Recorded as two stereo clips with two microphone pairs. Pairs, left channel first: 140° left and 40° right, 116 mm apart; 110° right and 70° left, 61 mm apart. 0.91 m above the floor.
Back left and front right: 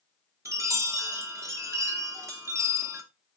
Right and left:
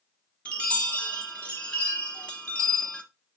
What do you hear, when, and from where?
0.5 s a chime: 60° right, 0.8 m